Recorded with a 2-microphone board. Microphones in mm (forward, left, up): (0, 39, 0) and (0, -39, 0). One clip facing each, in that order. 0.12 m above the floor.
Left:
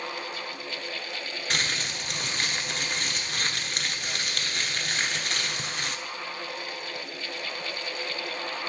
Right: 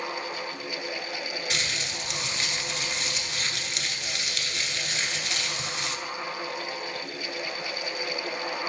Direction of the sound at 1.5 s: 45° left (ahead or behind).